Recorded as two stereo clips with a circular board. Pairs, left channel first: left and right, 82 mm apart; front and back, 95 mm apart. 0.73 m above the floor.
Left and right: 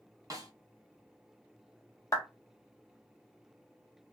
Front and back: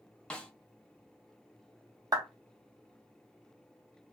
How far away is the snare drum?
About 0.6 m.